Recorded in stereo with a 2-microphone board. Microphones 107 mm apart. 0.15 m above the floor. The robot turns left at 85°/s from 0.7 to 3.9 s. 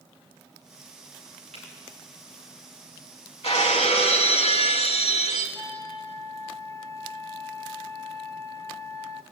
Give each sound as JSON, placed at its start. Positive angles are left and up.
{"t": 1.5, "sound": "a finger snap", "side_deg": -75, "distance_m": 9.0}
{"t": 3.4, "sound": "breaking glass", "azimuth_deg": 115, "distance_m": 4.0}
{"t": 5.5, "sound": "a flute", "side_deg": 30, "distance_m": 2.0}